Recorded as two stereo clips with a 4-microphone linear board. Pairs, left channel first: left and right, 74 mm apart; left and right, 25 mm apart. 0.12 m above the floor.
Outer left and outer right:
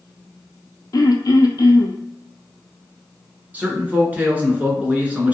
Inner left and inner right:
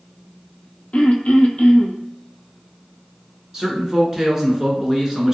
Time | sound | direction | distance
0.9 | throat clearing | 60° left (ahead or behind) | 0.5 m
3.5 | a man speaking | 25° right (ahead or behind) | 1.1 m